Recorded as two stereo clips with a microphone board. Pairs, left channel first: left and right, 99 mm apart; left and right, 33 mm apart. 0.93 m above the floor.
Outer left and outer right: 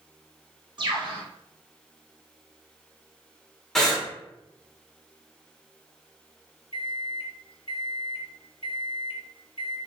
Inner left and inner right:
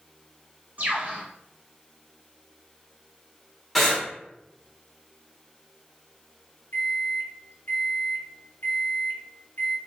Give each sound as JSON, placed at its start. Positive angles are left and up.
{"t": 0.8, "sound": "a bird", "side_deg": -50, "distance_m": 1.1}
{"t": 3.8, "sound": "breathing", "side_deg": 5, "distance_m": 0.9}
{"t": 6.7, "sound": "a microwave", "side_deg": 65, "distance_m": 0.6}